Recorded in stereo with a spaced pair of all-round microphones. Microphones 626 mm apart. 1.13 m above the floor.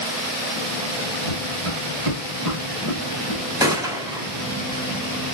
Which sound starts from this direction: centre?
A gunshot, at 3.6 s.